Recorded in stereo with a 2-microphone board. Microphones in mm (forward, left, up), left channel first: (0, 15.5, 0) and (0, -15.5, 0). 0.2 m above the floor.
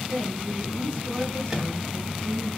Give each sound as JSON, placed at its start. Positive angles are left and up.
{"t": 0.1, "sound": "a woman speaking", "side_deg": -25, "distance_m": 1.4}
{"t": 1.5, "sound": "a microwave", "side_deg": -20, "distance_m": 0.8}